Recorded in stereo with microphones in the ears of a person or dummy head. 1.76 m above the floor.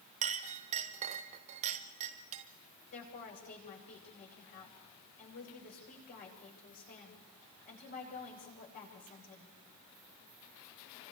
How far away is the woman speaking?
About 8 m.